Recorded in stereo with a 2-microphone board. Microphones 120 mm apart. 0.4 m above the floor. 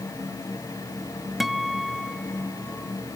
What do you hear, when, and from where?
1.4 s a guitar: centre (ahead or behind)